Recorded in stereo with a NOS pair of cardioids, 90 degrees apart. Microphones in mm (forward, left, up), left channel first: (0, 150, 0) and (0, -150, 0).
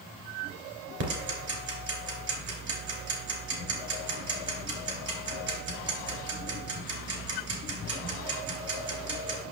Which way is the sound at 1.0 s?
60° right.